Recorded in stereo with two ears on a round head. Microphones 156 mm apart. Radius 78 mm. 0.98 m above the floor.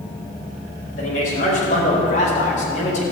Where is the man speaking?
50° left (ahead or behind), 5 m; by 3.0 s 45° left (ahead or behind), 3.5 m.